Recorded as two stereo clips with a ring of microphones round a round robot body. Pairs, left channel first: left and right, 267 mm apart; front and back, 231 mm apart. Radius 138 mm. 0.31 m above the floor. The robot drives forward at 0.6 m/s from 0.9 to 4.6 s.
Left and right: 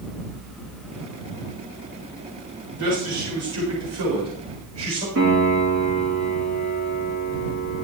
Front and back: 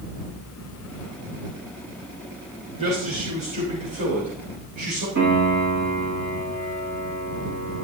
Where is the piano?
130° right, 7.5 m.